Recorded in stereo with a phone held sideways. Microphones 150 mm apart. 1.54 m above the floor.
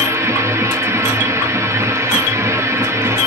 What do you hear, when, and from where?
0.0 s a machine running: 20° right (ahead or behind), 0.9 m